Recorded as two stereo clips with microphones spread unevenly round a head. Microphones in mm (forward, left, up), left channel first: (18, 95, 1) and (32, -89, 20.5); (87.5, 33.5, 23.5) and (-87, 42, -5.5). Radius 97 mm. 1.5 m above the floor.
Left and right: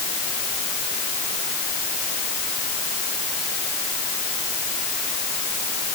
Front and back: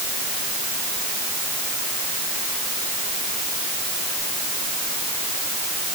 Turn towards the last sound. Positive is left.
No sound to turn to.